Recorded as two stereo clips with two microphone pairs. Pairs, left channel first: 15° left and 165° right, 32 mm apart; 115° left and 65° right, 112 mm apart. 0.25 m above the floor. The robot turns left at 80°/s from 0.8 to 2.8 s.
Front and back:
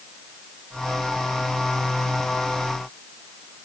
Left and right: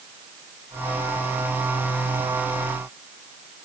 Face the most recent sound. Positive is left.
No sound to turn to.